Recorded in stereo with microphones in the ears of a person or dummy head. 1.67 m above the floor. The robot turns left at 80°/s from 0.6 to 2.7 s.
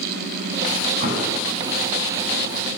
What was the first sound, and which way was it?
An explosion, 125° right.